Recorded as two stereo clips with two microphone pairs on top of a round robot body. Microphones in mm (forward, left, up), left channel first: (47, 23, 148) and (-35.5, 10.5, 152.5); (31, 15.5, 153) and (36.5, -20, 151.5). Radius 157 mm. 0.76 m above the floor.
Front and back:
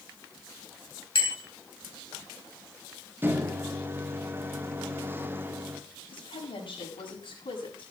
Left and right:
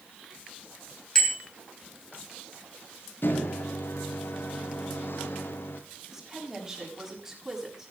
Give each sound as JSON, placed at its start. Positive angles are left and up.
{"t": 1.1, "sound": "a bicycle bell", "azimuth_deg": 30, "distance_m": 7.0}
{"t": 3.2, "sound": "a microwave", "azimuth_deg": 120, "distance_m": 2.0}
{"t": 6.1, "sound": "a woman speaking", "azimuth_deg": 5, "distance_m": 7.0}